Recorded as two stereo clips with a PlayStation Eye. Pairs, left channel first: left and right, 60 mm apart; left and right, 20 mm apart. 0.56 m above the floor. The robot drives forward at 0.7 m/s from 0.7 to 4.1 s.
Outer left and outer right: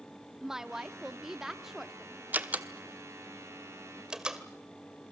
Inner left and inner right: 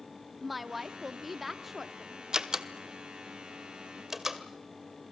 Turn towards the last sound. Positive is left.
turn(degrees=-15)  # may be behind; listen again after turning